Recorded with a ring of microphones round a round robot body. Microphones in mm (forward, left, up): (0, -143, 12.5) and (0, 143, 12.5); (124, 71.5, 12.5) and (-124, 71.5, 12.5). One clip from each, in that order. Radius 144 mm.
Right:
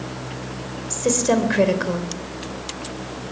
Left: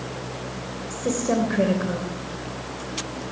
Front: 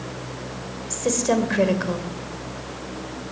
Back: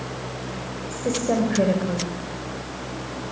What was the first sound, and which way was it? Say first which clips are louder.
A woman speaking: right 5 dB, front 2 dB; 45° right.